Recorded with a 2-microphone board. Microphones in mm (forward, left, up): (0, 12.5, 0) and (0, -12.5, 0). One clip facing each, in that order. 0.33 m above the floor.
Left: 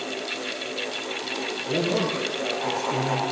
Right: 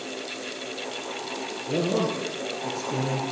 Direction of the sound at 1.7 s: 25° right (ahead or behind).